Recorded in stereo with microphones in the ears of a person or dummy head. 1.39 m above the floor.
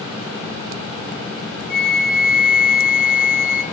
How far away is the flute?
About 0.6 m.